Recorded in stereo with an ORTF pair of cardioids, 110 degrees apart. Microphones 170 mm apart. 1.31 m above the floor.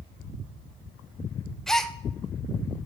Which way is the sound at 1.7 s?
Straight ahead.